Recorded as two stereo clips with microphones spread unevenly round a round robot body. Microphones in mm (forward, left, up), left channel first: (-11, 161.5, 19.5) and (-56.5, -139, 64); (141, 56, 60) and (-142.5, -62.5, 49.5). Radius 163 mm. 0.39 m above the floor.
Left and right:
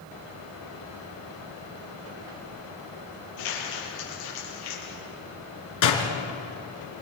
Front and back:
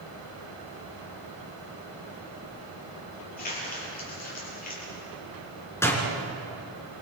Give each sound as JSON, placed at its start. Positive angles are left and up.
{"t": 3.4, "sound": "crumpling", "azimuth_deg": 85, "distance_m": 7.0}
{"t": 5.8, "sound": "a door slam", "azimuth_deg": 105, "distance_m": 3.5}